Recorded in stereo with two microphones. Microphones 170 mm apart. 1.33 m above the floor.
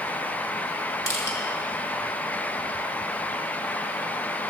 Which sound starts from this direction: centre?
Crushing, at 1.1 s.